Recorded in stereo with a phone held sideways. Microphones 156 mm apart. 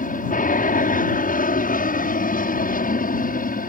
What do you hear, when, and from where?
0.0 s an aircraft: 60° left (ahead or behind); by 3.7 s 65° left (ahead or behind)